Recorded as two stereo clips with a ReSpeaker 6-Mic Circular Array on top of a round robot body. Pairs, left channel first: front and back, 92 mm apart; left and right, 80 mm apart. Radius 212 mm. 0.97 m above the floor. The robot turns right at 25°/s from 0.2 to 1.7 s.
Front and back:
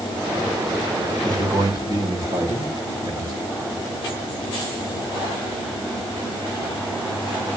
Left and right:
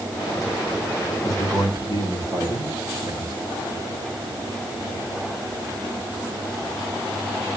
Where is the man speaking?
140° right, 5.5 m; by 3.4 s 130° right, 5.5 m.